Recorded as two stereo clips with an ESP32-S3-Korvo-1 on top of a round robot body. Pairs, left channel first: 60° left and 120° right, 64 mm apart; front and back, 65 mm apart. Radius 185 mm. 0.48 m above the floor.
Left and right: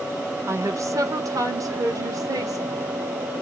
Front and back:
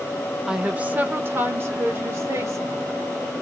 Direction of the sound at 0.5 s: 100° right.